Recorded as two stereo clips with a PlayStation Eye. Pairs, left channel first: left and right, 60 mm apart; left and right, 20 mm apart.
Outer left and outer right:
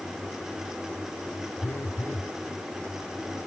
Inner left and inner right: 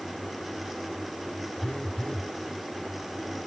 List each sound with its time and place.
1.6 s a phone buzzing: 55° left (ahead or behind)